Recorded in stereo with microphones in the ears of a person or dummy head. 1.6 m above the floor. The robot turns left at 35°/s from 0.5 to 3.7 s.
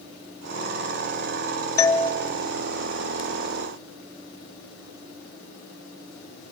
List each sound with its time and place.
1.8 s a doorbell: 15° left (ahead or behind), 1.1 m; by 2.1 s 5° left (ahead or behind), 1.1 m